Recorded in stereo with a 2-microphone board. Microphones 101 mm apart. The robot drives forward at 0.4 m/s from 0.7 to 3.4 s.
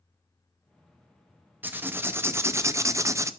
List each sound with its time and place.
1.6 s writing: 20° right (ahead or behind), 0.7 m; by 3.3 s 30° right (ahead or behind), 0.5 m